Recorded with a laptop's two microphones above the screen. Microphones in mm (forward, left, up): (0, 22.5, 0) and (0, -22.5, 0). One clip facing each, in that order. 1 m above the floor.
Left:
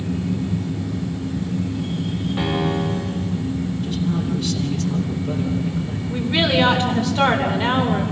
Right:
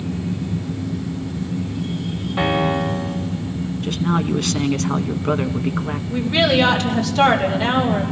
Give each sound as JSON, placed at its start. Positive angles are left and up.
{"t": 2.4, "sound": "a piano", "side_deg": -10, "distance_m": 2.5}
{"t": 3.8, "sound": "a man speaking", "side_deg": -65, "distance_m": 1.0}
{"t": 6.1, "sound": "a woman speaking", "side_deg": 20, "distance_m": 3.5}